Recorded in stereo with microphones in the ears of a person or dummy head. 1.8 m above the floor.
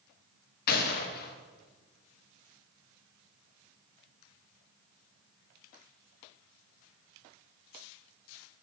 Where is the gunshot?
55° left (ahead or behind), 1.6 m.